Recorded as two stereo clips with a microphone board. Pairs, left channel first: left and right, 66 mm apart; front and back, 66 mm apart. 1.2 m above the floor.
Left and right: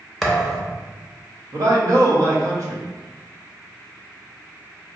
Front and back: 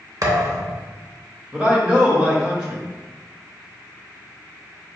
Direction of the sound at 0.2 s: 175° left.